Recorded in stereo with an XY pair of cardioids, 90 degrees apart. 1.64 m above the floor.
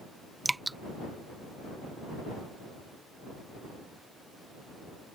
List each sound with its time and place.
0.5 s dripping: 15° right